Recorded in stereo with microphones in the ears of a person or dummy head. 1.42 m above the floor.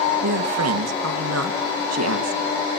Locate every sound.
0.2 s a man speaking: 60° right (ahead or behind), 1.7 m